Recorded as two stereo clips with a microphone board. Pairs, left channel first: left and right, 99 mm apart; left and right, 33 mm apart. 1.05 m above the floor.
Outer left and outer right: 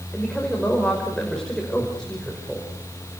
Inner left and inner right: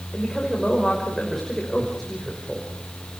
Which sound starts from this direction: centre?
A woman speaking, at 0.1 s.